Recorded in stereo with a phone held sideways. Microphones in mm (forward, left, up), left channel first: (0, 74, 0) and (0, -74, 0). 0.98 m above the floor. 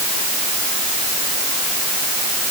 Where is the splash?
I don't hear a splash.